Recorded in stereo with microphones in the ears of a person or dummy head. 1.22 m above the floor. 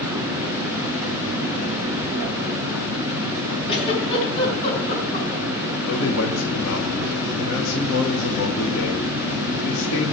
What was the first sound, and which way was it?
A giggle, 35° left (ahead or behind).